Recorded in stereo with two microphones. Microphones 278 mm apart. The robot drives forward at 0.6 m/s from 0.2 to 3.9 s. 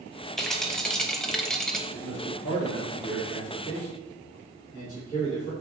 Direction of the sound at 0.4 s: Centre (ahead or behind).